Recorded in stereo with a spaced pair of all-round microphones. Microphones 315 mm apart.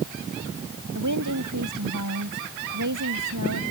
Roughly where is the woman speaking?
Right.